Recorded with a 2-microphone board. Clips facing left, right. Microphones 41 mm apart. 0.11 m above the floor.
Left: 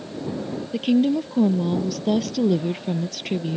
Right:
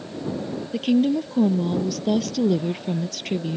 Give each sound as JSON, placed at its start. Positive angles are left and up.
{"t": 0.7, "sound": "a woman speaking", "side_deg": 5}